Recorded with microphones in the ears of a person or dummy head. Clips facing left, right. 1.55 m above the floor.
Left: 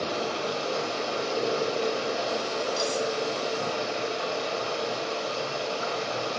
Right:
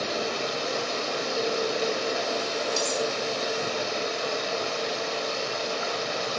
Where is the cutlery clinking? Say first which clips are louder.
Even; 75° right (ahead or behind), 5 m.